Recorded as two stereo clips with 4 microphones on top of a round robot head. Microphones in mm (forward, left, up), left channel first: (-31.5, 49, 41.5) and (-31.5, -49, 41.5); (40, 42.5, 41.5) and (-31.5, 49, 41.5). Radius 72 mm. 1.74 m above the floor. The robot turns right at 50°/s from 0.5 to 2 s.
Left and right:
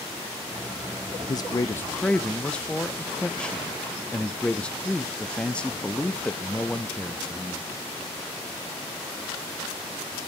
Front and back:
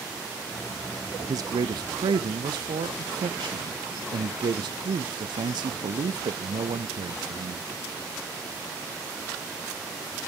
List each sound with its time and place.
1.3 s a man speaking: 135° left, 0.5 m; by 7.7 s 170° left, 0.5 m